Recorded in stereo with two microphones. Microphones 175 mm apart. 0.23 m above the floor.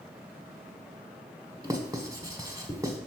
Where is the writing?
20° right (ahead or behind), 1.5 m.